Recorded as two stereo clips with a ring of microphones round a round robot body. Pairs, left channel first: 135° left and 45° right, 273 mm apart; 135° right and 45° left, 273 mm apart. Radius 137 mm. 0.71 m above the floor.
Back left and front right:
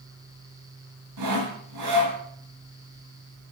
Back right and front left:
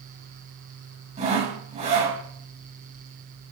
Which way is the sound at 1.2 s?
20° right.